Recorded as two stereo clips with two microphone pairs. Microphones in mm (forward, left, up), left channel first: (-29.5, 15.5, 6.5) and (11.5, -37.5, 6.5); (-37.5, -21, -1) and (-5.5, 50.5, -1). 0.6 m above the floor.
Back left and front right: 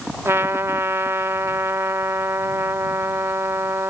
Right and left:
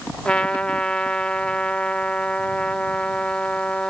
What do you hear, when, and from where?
0.2 s a trumpet: 45° right